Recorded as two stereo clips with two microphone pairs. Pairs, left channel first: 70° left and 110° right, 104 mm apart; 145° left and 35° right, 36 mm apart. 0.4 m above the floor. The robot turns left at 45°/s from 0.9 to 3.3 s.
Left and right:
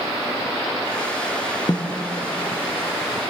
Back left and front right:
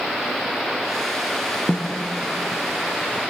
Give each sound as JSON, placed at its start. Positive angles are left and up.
{"t": 1.7, "sound": "a snare drum", "azimuth_deg": 115, "distance_m": 2.5}